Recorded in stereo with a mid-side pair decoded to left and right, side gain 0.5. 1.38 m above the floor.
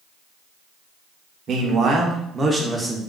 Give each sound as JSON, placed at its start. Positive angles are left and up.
{"t": 1.5, "sound": "a man speaking", "azimuth_deg": -60, "distance_m": 1.0}